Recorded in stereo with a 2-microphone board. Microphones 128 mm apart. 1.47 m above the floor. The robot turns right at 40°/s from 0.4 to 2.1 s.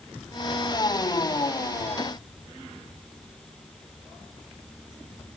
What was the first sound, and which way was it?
Only background noise.